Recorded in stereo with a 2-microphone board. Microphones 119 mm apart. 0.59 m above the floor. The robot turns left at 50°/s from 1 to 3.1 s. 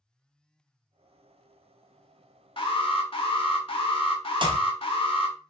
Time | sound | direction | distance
2.6 | an alarm | 45° left (ahead or behind) | 0.7 m
4.4 | a clap | 45° right (ahead or behind) | 0.6 m